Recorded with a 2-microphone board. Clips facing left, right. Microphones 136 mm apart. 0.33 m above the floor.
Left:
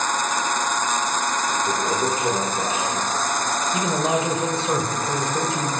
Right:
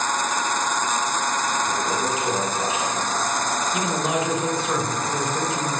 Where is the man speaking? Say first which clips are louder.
Left 3 dB; 30° left (ahead or behind), 1.6 m.